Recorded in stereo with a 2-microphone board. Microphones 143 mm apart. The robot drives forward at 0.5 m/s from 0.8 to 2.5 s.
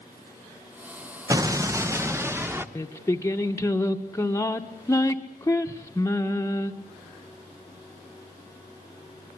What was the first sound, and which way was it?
An explosion, 25° right (ahead or behind).